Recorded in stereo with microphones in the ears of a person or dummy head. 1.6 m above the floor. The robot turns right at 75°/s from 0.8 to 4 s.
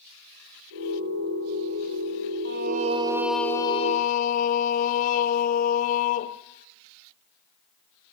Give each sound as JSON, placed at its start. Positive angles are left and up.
{"t": 2.5, "sound": "singing", "azimuth_deg": -60, "distance_m": 0.9}